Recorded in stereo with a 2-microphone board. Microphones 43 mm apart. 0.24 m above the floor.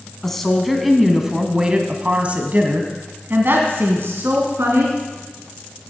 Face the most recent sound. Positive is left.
turn(degrees=-65)  # may be behind; listen again after turning